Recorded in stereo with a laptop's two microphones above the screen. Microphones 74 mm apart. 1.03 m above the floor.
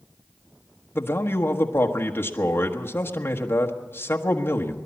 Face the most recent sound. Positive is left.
turn(degrees=30)  # may be behind; listen again after turning